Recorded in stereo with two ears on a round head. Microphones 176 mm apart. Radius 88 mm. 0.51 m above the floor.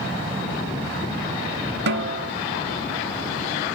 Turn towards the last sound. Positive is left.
turn(degrees=-55)  # may be behind; listen again after turning